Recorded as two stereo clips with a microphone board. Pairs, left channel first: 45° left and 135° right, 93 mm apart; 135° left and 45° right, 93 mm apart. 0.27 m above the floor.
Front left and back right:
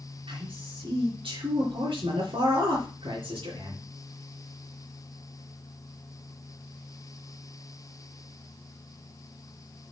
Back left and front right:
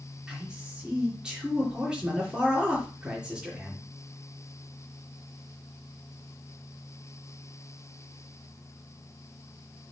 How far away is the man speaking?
About 4 m.